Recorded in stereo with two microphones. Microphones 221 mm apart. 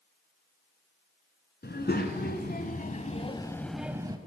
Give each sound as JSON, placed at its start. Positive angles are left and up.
{"t": 1.6, "sound": "a child speaking", "side_deg": 50, "distance_m": 1.4}